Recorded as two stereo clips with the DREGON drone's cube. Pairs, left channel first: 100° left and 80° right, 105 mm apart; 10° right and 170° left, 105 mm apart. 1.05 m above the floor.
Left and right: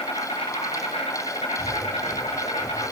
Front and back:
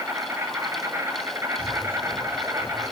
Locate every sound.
0.0 s an insect: 105° left, 2.5 m
1.6 s breathing: 15° left, 3.5 m